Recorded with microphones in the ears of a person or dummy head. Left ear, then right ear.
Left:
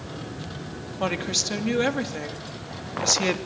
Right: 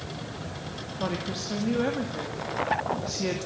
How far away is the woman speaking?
About 2.5 m.